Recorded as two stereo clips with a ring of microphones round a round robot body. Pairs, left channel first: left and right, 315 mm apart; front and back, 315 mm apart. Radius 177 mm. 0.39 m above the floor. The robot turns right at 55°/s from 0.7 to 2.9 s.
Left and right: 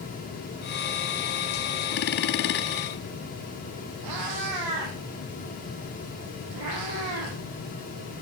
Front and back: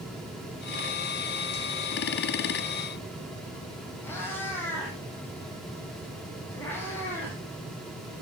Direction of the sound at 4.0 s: 85° right.